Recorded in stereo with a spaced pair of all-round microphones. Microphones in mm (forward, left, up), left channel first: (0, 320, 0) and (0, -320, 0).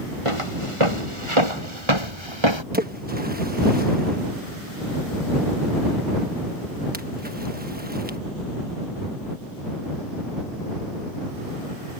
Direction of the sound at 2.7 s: 15° right (ahead or behind).